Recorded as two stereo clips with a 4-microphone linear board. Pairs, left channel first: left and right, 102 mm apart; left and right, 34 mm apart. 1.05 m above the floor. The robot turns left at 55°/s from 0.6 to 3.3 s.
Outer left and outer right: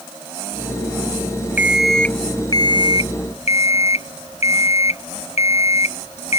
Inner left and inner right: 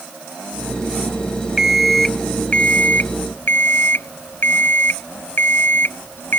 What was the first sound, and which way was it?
An alarm clock, 165° right.